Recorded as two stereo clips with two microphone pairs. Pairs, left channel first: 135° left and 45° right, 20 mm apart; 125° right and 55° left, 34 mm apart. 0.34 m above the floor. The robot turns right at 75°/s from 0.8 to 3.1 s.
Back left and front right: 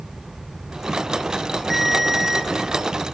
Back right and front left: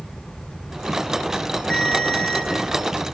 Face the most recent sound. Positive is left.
turn(degrees=-45)